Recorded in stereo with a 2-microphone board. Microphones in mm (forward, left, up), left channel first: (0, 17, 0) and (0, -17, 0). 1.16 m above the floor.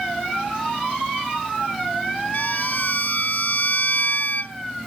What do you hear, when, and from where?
2.3 s a violin: 50° left (ahead or behind)